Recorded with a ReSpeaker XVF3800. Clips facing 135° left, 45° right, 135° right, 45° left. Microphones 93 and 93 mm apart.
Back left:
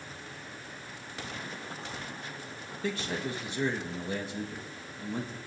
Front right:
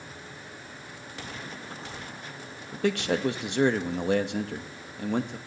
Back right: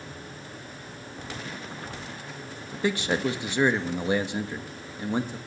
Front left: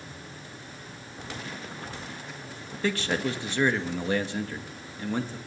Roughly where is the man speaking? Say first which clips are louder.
Front right 8 dB, back right 2 dB; ahead right.